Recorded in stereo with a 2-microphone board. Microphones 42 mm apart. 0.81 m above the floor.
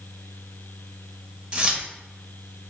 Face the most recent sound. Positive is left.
turn(degrees=-25)  # may be behind; listen again after turning